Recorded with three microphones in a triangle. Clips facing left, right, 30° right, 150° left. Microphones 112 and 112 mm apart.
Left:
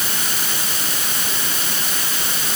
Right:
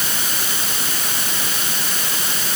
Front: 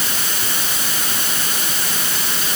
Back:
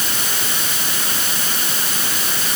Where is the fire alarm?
I don't hear a fire alarm.